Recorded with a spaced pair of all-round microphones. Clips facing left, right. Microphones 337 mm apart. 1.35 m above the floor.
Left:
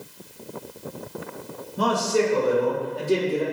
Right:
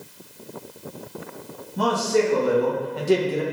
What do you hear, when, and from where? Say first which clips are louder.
1.8 s a man speaking: right 1 dB; 65° right (ahead or behind), 2.5 m; by 3.4 s 80° right, 1.2 m